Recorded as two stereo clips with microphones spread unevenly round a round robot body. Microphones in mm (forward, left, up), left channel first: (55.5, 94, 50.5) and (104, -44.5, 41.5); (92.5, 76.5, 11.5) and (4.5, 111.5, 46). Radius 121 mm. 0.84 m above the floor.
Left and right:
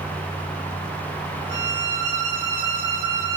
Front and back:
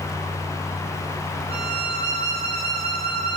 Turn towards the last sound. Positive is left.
turn(degrees=-125)